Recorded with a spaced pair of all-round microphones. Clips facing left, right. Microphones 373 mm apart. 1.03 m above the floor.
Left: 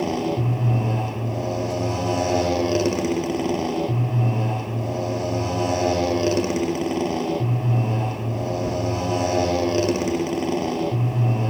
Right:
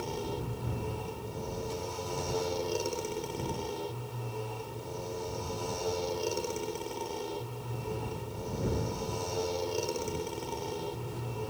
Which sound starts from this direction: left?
A motorcycle, at 0.0 s.